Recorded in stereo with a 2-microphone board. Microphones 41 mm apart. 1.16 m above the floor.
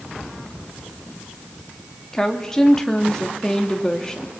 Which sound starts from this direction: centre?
A woman speaking, at 2.1 s.